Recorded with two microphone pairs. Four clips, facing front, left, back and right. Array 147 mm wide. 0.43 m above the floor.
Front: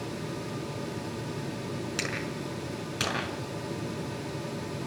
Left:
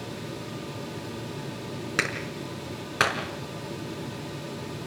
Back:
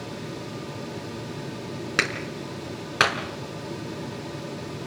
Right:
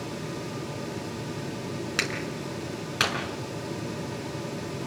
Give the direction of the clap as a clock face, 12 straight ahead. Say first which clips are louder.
Even, back 4 dB; 6 o'clock.